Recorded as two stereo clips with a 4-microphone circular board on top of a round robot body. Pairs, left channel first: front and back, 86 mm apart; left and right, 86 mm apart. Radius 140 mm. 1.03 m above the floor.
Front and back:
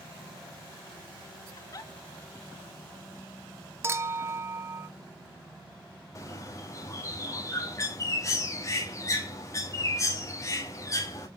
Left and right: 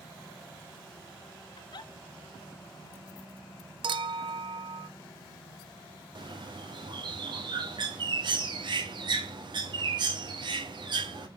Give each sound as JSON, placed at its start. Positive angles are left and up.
{"t": 1.6, "sound": "a giggle", "azimuth_deg": 50, "distance_m": 0.6}
{"t": 3.8, "sound": "a clink", "azimuth_deg": -120, "distance_m": 0.6}
{"t": 6.2, "sound": "a bird", "azimuth_deg": -55, "distance_m": 1.3}